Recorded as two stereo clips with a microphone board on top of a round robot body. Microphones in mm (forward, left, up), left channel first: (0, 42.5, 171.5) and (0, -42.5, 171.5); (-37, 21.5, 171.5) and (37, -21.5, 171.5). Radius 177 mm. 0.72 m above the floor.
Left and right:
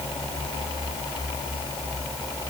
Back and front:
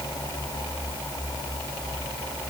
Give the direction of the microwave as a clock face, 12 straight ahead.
I don't hear a microwave.